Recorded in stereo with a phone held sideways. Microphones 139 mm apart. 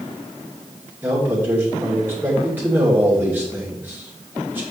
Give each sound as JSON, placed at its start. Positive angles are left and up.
{"t": 1.0, "sound": "a man speaking", "side_deg": -15, "distance_m": 2.5}